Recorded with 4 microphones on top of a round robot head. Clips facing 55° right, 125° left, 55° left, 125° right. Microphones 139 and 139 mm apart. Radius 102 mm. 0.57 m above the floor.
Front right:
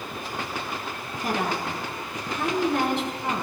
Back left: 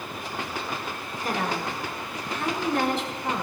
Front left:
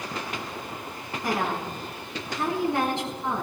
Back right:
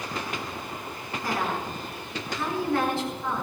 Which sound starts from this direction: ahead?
A woman speaking, at 1.2 s.